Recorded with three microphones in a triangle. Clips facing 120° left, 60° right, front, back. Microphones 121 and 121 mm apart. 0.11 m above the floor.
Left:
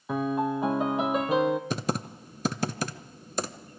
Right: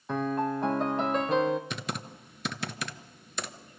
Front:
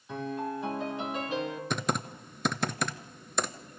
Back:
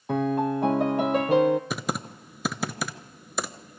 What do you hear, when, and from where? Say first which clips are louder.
0.1 s a piano: left 2 dB, back 10 dB; 155° right, 0.9 m
1.7 s typing on a keyboard: left 7 dB, back 1 dB; 95° left, 0.6 m